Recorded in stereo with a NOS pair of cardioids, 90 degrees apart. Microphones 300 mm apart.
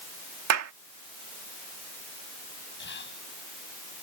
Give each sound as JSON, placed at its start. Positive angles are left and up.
{"t": 0.5, "sound": "a clap", "azimuth_deg": -55}
{"t": 2.8, "sound": "whispering", "azimuth_deg": 40}